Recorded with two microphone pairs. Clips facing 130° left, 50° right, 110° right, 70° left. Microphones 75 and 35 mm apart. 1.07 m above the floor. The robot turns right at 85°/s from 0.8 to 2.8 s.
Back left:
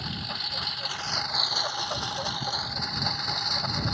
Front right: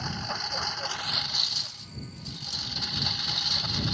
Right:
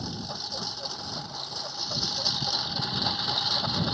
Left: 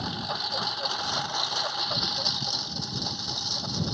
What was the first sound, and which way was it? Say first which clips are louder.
A lawn mower: front right 2 dB, left 5 dB; 25° left.